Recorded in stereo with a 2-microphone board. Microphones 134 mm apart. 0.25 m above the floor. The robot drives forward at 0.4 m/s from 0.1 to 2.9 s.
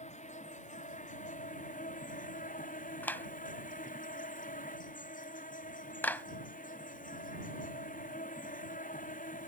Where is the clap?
15° left (ahead or behind).